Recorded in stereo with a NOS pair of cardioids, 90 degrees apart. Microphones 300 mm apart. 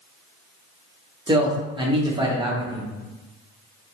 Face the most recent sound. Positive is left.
turn(degrees=-15)